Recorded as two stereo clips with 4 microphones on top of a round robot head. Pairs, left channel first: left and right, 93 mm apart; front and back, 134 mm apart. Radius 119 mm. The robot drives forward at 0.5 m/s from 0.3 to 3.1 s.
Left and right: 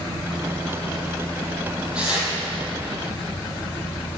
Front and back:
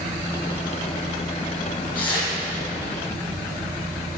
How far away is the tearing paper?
About 6 m.